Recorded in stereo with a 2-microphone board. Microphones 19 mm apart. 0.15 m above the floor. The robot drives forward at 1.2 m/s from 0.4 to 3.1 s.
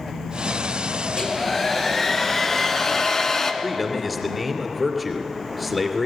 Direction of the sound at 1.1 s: 15° left (ahead or behind).